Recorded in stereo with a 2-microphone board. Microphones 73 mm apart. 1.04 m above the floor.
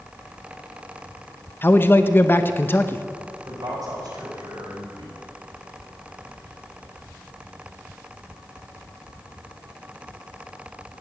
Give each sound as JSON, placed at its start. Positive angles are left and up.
{"t": 1.6, "sound": "a man speaking", "side_deg": 30, "distance_m": 0.6}
{"t": 3.5, "sound": "a man speaking", "side_deg": -70, "distance_m": 6.0}